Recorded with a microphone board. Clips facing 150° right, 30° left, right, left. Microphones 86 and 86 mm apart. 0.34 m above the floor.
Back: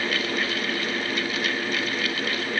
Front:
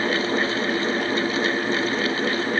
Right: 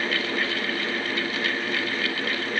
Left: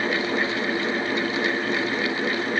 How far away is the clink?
I don't hear a clink.